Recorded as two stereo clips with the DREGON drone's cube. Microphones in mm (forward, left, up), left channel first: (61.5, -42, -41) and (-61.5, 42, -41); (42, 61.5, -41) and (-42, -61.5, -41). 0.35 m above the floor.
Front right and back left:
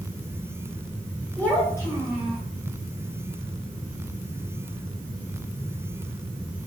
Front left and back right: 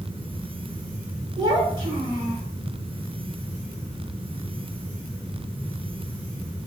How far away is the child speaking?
About 1.1 m.